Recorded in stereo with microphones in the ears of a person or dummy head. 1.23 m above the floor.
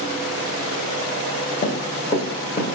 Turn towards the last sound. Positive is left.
turn(degrees=25)  # may be behind; listen again after turning